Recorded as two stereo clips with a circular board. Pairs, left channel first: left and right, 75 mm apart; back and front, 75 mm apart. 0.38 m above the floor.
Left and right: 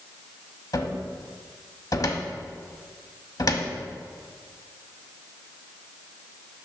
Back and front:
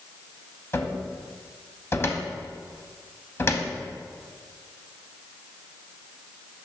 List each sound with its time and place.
0.7 s a cupboard door: 125° left, 0.7 m